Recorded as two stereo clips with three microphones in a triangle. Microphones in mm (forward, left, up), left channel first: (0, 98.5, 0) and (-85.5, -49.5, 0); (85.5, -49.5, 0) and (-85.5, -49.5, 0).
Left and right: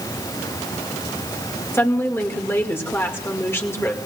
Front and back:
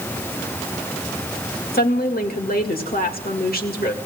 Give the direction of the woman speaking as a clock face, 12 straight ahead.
12 o'clock.